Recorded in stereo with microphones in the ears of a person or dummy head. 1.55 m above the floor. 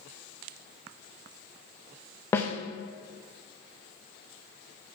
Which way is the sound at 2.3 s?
10° left (ahead or behind).